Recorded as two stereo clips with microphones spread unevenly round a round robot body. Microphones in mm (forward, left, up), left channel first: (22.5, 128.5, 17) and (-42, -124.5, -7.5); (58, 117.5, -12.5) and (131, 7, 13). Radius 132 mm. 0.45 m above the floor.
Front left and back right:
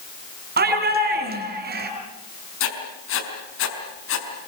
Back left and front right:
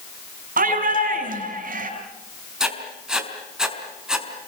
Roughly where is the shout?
Ahead right.